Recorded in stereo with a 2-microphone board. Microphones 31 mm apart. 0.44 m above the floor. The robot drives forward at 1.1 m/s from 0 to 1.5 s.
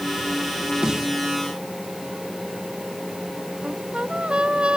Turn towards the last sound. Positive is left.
turn(degrees=-35)  # may be behind; listen again after turning